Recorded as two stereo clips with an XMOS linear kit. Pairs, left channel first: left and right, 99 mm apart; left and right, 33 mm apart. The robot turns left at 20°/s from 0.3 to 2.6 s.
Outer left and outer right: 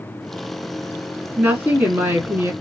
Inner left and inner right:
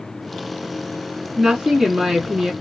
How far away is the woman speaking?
About 1.2 m.